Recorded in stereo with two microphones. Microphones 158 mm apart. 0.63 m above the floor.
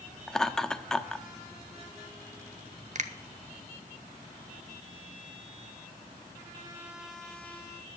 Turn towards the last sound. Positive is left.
turn(degrees=-50)  # may be behind; listen again after turning